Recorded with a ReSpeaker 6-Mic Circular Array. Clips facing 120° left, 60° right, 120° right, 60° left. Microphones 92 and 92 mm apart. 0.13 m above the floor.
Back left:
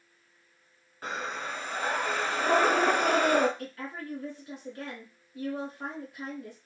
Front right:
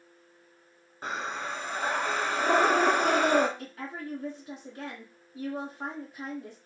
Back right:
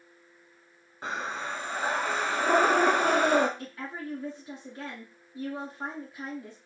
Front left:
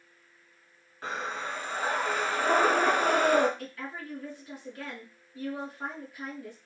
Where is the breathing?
85° right, 1.3 m.